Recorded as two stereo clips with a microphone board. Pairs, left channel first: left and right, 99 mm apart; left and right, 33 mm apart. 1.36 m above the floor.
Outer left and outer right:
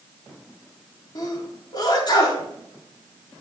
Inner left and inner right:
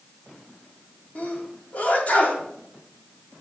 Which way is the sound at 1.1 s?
45° left (ahead or behind).